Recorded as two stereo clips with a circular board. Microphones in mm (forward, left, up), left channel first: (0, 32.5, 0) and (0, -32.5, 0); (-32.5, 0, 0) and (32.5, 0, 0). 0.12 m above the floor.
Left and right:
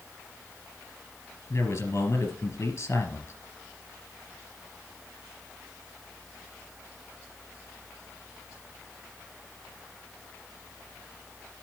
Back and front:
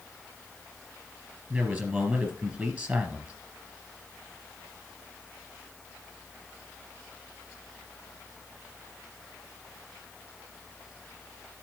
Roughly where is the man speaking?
Ahead left.